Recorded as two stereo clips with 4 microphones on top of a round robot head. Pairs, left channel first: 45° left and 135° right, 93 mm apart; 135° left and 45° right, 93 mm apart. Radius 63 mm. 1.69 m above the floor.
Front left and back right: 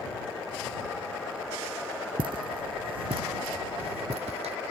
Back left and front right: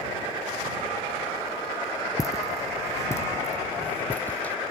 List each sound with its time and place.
2.2 s footsteps: 170° right; by 4.5 s 150° right